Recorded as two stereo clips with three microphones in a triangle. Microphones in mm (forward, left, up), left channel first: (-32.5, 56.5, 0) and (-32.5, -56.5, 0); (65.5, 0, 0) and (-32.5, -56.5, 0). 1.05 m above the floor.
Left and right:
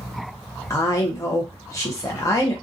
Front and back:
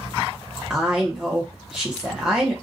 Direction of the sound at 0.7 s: 135° left.